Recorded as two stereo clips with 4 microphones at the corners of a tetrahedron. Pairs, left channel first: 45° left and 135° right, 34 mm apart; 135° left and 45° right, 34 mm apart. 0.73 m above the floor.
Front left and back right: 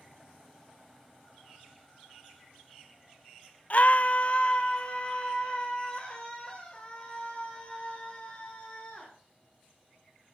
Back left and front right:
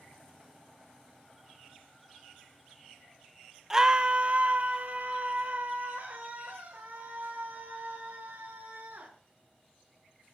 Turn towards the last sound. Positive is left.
turn(degrees=-20)